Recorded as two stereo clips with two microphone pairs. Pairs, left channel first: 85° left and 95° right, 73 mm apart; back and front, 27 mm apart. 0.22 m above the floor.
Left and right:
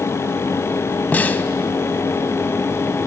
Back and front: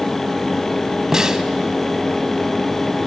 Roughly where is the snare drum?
Ahead left.